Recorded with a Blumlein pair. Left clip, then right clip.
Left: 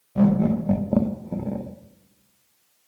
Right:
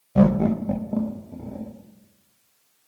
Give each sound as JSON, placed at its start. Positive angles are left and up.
{"t": 0.1, "sound": "laughter", "azimuth_deg": -20, "distance_m": 1.0}